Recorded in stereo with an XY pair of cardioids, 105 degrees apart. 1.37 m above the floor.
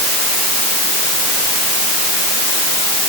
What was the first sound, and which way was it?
Only background noise.